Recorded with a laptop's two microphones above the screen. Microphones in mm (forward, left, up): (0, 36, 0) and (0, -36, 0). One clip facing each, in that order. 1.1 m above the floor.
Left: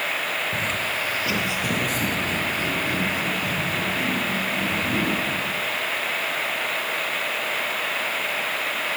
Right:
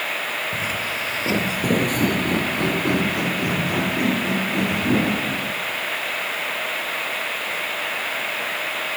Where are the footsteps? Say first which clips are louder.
Even; centre (ahead or behind), 1.1 m; by 5.5 s 70° right (ahead or behind), 4.5 m.